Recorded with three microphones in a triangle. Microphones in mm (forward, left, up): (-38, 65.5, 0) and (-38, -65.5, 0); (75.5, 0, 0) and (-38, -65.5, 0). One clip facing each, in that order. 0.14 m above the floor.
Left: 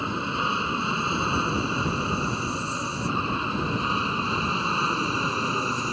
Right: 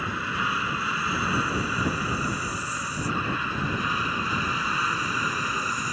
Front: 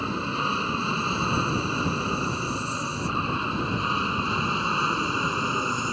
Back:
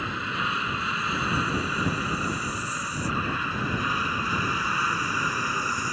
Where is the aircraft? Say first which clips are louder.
Left 2 dB, front 3 dB; 50° left; by 5.9 s 70° left.